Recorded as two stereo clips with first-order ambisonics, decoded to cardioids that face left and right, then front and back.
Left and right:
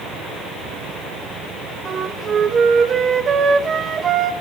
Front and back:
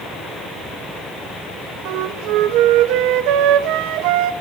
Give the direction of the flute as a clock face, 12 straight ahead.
5 o'clock.